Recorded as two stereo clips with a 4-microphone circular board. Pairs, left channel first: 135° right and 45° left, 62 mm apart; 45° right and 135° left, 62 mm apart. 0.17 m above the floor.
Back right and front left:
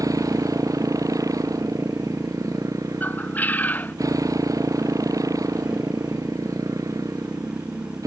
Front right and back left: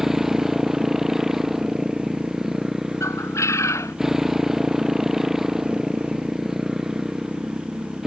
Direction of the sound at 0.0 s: 55° left.